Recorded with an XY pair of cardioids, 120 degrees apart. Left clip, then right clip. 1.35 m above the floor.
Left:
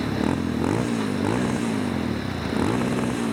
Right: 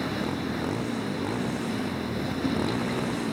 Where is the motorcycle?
45° left; by 3.3 s 25° left.